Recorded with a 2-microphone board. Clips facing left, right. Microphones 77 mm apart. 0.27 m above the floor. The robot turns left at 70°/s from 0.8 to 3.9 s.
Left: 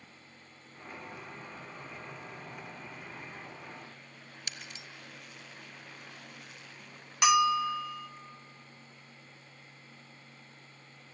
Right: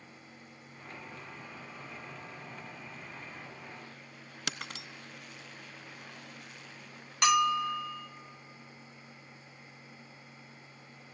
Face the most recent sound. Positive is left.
turn(degrees=5)  # may be behind; listen again after turning